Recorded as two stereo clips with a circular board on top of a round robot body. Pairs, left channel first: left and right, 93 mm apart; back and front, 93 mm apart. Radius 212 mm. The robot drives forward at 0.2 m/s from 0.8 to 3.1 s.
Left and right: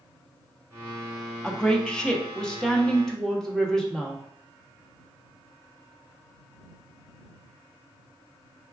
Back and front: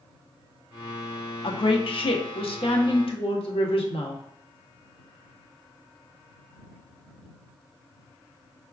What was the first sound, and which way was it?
A woman speaking, 170° left.